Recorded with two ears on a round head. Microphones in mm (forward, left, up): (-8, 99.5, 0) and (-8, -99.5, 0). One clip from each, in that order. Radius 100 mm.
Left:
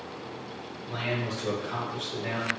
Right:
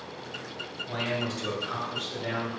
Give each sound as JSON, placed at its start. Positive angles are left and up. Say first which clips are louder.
{"t": 0.9, "sound": "a man speaking", "louder": "even", "side_deg": -45, "distance_m": 1.7}